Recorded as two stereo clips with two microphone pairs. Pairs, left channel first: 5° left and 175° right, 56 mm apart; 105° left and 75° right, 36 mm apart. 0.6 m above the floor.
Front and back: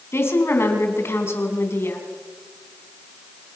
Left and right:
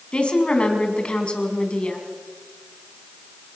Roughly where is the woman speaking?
Ahead left.